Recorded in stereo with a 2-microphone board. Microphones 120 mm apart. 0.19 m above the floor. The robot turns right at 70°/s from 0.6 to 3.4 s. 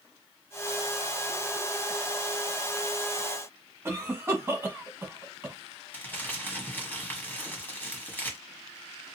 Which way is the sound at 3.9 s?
20° right (ahead or behind).